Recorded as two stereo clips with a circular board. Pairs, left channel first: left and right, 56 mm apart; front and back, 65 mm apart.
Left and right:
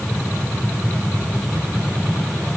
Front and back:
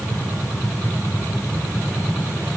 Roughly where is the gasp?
I don't hear a gasp.